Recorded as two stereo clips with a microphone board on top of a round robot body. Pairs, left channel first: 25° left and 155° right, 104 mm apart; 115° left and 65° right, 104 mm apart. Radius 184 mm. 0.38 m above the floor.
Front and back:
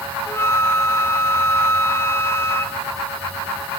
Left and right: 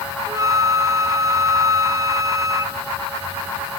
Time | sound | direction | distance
0.3 | a flute | 30° right | 1.4 m